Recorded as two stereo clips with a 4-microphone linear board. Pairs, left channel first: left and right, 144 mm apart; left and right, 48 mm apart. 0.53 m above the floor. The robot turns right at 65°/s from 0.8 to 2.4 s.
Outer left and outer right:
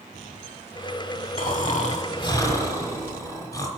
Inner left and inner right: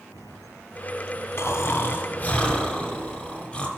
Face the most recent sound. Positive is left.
turn(degrees=155)